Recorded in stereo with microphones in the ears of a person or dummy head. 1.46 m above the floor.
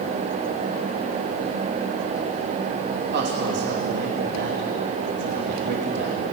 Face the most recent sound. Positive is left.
turn(degrees=-45)  # may be behind; listen again after turning